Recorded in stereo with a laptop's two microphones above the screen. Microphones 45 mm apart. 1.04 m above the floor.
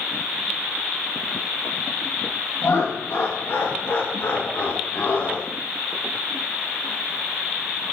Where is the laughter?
65° left (ahead or behind), 1.7 m; by 5.5 s 35° left (ahead or behind), 2 m.